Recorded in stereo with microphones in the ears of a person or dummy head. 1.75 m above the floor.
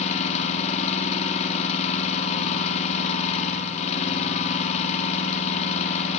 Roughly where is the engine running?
Left.